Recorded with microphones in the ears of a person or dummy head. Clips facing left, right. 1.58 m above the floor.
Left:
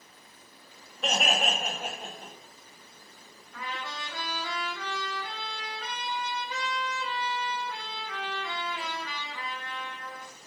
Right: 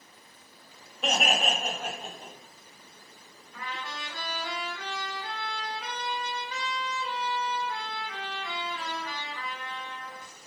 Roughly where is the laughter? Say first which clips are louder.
Right 1 dB; centre.